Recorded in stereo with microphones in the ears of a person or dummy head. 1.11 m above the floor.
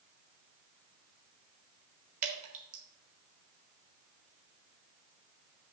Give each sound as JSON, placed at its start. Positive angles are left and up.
{"t": 2.2, "sound": "dripping", "side_deg": -45, "distance_m": 1.0}